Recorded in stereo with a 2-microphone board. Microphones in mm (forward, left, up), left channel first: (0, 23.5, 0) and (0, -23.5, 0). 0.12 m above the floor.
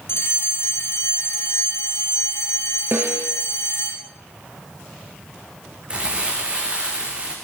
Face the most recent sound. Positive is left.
turn(degrees=-25)  # may be behind; listen again after turning